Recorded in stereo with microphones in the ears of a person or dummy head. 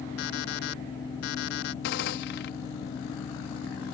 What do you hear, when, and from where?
0.2 s an alarm clock: 65° left (ahead or behind)
1.8 s a gunshot: 60° left (ahead or behind)